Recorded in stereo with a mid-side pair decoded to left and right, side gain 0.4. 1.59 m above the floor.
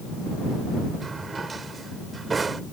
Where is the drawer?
40° right.